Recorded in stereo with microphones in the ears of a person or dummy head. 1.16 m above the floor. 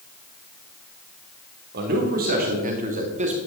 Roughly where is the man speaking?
Right.